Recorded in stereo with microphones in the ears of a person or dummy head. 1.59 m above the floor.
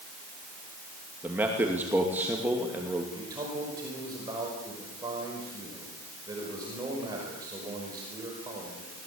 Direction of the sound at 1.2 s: 10° right (ahead or behind).